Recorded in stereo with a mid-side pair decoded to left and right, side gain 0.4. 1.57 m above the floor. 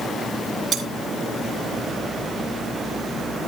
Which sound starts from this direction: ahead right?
Cutlery clinking, at 0.7 s.